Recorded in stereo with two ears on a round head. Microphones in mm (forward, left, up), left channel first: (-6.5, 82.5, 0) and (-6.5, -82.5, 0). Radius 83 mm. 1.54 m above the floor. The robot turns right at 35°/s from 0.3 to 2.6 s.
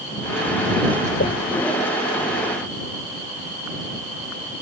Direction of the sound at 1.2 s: 55° left (ahead or behind).